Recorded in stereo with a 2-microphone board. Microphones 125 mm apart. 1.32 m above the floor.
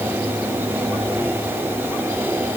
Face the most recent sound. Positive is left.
No sound to turn to.